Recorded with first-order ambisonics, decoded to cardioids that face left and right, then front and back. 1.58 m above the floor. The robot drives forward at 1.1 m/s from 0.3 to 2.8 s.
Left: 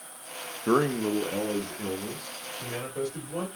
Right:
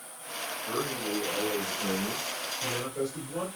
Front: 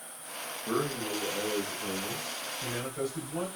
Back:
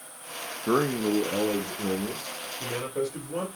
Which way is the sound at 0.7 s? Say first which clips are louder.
Left 9 dB, back 7 dB; 120° left.